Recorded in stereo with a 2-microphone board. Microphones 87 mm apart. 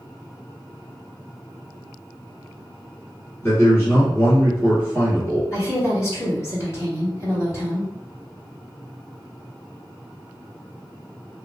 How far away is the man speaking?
About 1.4 m.